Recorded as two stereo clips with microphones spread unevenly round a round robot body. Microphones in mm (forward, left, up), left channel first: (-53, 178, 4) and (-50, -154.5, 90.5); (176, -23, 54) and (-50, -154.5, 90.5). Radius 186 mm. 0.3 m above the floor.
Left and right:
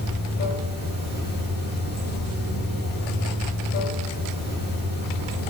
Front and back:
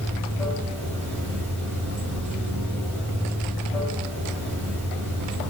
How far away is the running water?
About 1.1 m.